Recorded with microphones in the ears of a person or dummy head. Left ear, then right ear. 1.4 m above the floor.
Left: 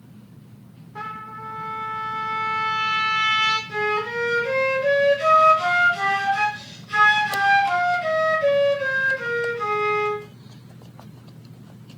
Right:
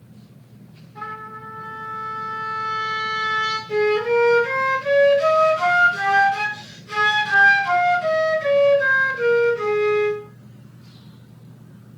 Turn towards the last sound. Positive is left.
turn(degrees=-70)  # may be behind; listen again after turning